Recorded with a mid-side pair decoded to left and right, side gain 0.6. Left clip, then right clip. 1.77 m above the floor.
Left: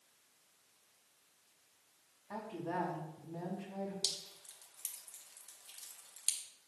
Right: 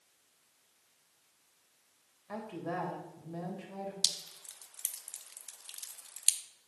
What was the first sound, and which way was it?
A woman speaking, 60° right.